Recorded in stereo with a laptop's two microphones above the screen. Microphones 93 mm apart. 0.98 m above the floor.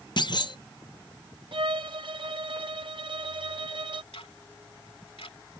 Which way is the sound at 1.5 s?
60° right (ahead or behind).